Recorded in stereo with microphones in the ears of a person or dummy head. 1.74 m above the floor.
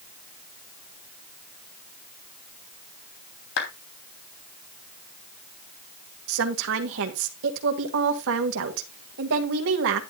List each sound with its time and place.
3.6 s a clap: 70° left (ahead or behind), 3 m
6.3 s a woman speaking: 65° right (ahead or behind), 1.8 m